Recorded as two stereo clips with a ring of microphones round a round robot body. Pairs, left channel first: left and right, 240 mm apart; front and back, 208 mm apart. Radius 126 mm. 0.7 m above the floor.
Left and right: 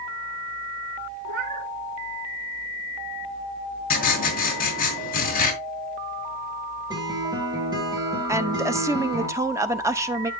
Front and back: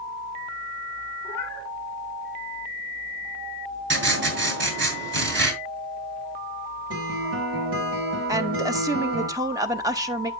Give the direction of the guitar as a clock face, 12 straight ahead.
5 o'clock.